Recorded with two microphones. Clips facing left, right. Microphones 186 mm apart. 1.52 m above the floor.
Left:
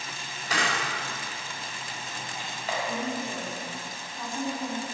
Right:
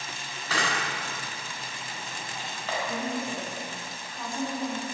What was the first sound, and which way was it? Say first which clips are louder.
A camera shutter: even; 15° left (ahead or behind).